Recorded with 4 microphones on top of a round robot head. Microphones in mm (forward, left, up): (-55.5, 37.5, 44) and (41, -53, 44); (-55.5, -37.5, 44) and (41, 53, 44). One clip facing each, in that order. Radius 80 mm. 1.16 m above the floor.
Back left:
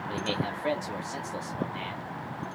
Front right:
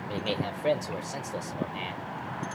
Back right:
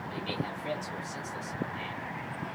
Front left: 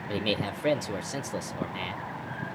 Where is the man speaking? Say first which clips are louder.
Even, front left 7 dB; 35° left, 0.5 m.